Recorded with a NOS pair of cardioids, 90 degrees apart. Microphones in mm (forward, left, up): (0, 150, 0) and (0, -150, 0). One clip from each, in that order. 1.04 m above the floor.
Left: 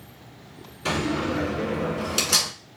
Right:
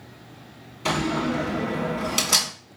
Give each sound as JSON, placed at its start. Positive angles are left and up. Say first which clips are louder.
{"t": 0.8, "sound": "a door slam", "louder": "right 1 dB", "azimuth_deg": -15, "distance_m": 1.8}